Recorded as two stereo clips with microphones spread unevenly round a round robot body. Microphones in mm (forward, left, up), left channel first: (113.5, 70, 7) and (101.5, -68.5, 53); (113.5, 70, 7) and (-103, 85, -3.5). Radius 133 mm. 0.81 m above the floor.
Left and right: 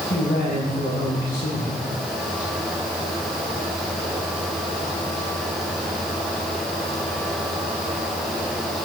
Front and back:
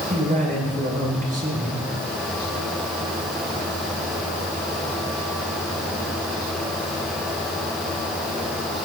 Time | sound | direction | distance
0.1 | a man speaking | 125° left | 7 m